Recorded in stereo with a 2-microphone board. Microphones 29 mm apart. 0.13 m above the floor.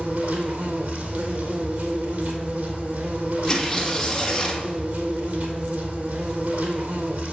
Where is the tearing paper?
10° left (ahead or behind), 1.9 m.